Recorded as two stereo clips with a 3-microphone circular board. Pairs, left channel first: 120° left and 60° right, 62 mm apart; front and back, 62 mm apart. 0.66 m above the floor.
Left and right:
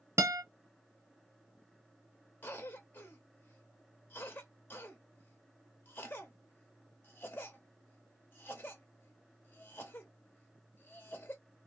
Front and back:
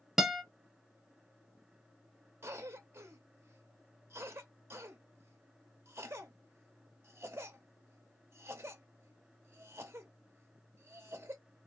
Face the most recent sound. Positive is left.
turn(degrees=165)